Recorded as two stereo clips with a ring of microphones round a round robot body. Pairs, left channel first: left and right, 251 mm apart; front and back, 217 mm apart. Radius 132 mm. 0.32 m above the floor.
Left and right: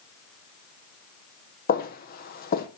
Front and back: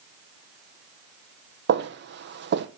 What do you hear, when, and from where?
1.7 s footsteps: 145° left, 1.0 m